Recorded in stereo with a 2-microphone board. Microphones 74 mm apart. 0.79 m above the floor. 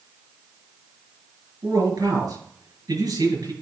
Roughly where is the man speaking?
Right.